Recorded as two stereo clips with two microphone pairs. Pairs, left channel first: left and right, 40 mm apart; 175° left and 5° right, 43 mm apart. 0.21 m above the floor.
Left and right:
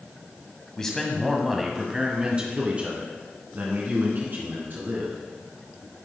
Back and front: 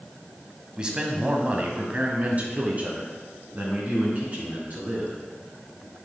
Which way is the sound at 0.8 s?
35° left.